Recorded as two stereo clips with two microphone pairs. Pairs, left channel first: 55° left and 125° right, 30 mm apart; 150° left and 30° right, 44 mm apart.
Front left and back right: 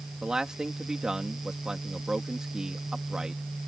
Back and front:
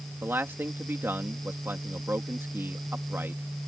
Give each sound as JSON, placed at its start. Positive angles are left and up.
{"t": 0.2, "sound": "a man speaking", "azimuth_deg": -55}